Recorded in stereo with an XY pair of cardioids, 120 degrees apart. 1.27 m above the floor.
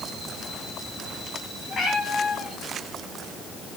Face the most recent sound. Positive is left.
turn(degrees=40)